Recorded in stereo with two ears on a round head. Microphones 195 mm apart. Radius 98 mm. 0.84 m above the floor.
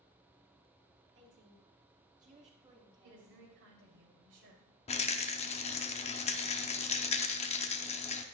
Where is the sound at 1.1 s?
60° right (ahead or behind), 2 m; by 3.4 s 15° right (ahead or behind), 2 m.